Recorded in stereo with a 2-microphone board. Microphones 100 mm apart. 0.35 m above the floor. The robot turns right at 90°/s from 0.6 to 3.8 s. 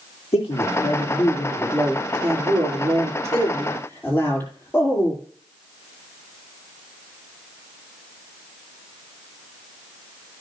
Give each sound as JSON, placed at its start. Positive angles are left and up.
{"t": 0.3, "sound": "a man speaking", "azimuth_deg": 95, "distance_m": 8.0}